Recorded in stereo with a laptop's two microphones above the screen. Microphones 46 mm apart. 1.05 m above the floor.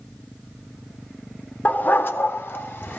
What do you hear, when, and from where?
1.6 s a dog barking: 35° left (ahead or behind), 0.5 m; by 3.0 s 50° left (ahead or behind), 1.1 m